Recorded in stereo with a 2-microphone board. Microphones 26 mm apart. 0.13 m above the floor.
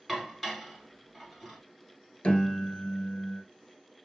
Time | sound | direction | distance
0.1 | dishes clattering | centre (ahead or behind) | 1.1 m
2.2 | a piano | 40° left (ahead or behind) | 0.7 m